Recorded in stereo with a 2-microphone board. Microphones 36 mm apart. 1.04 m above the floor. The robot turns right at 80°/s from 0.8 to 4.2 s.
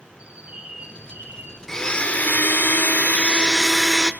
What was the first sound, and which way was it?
A bird, 145° right.